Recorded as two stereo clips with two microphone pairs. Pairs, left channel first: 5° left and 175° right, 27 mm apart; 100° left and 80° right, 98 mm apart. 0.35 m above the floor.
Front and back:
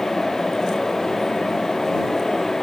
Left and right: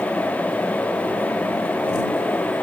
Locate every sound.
Only background noise.